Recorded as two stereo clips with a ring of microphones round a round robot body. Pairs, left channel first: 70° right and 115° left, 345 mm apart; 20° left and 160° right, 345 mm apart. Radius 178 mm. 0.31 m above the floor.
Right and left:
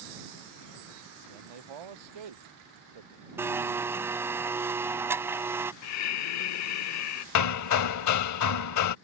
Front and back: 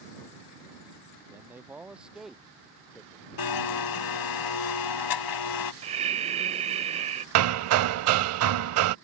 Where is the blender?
30° left.